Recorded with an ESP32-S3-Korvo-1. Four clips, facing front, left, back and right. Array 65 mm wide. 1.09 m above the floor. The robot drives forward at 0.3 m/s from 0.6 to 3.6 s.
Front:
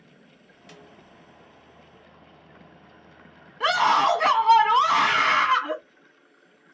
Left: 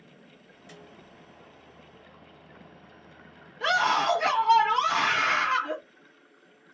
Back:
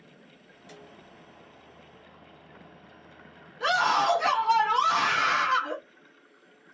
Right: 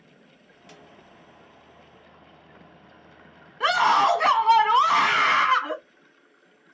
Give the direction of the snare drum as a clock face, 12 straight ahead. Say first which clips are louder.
Even, even; 1 o'clock.